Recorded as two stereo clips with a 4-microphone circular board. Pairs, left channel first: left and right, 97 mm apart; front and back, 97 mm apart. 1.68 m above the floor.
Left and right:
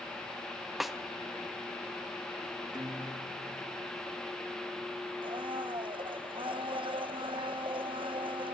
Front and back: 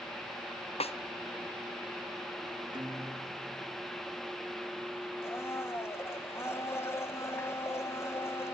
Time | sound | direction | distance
0.8 | a snare drum | straight ahead | 1.0 m
2.7 | a guitar | 135° right | 3.5 m
5.2 | a blender | 60° right | 1.3 m